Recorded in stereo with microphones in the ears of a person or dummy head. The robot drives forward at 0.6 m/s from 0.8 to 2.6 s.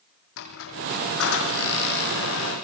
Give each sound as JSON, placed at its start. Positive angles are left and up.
{"t": 0.4, "sound": "a squeak", "side_deg": 80, "distance_m": 8.5}